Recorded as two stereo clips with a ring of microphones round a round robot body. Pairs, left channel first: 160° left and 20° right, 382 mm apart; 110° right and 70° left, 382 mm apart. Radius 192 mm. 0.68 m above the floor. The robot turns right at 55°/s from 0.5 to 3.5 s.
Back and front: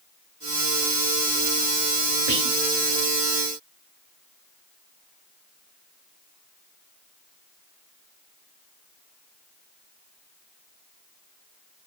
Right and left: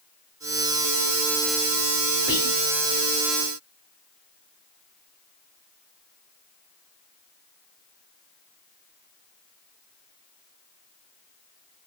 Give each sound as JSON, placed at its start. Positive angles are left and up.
{"t": 2.3, "sound": "whispering", "azimuth_deg": -35, "distance_m": 2.0}